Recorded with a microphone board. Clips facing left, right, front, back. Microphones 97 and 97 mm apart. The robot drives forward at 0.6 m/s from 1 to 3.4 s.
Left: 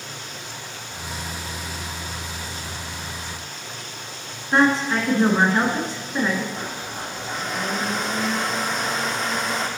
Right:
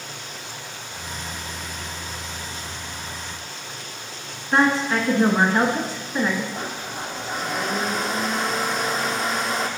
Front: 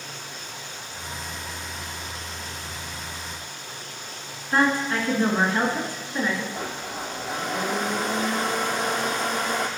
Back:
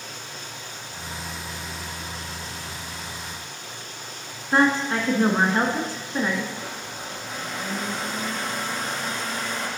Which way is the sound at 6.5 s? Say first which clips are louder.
Right 1 dB, front 3 dB; 5° right.